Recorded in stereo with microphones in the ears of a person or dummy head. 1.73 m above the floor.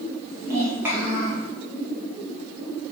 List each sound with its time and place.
0.3 s a child speaking: 25° right (ahead or behind), 1.0 m; by 1.5 s 10° right (ahead or behind), 1.6 m